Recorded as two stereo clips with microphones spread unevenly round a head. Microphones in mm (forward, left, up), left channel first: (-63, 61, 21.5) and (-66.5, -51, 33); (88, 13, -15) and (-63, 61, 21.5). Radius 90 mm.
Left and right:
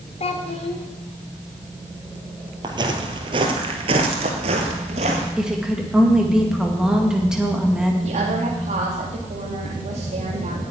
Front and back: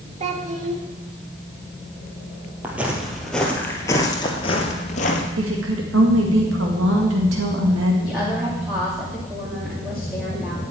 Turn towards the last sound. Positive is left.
turn(degrees=-115)